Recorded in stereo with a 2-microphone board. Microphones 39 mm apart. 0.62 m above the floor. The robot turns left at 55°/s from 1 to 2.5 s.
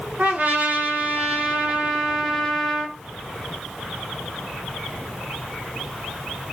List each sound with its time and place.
0.2 s a trumpet: 105° right, 0.8 m; by 3.0 s 175° left, 0.8 m